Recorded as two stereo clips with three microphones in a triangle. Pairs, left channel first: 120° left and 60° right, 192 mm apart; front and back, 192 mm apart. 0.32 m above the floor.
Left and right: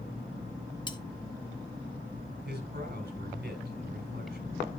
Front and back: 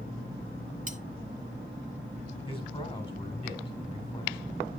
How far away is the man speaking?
About 1.8 m.